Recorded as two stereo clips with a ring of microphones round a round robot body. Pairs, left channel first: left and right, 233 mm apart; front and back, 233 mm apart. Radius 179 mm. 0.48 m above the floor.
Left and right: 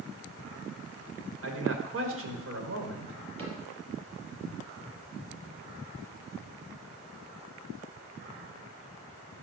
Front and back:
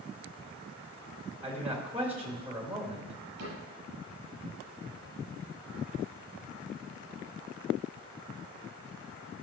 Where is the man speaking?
100° right, 2.5 m.